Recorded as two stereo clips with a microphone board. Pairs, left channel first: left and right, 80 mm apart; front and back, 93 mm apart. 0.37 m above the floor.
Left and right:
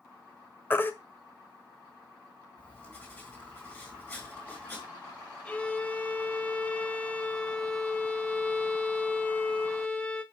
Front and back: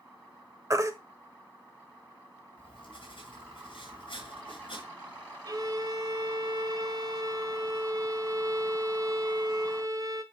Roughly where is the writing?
Ahead left.